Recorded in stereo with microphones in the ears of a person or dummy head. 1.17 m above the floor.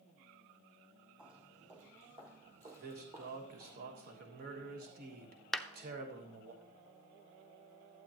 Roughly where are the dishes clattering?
No dishes clattering in this recording.